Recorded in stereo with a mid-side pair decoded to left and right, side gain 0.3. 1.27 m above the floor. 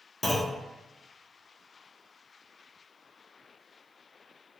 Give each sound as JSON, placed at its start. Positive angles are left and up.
{"t": 0.2, "sound": "a clunk", "azimuth_deg": 20, "distance_m": 0.8}